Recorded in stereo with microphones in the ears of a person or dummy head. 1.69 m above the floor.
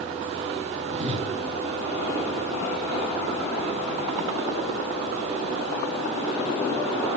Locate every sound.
0.9 s a whoosh: 30° right (ahead or behind), 2.5 m